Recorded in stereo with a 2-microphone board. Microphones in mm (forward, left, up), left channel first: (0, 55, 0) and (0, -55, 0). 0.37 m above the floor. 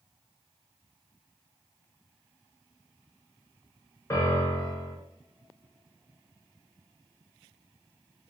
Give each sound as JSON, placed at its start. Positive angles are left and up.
{"t": 4.1, "sound": "a piano", "side_deg": 30, "distance_m": 0.8}